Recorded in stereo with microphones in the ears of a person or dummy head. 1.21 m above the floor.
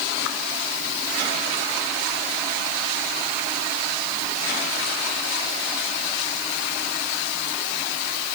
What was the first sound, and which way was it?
Only background noise.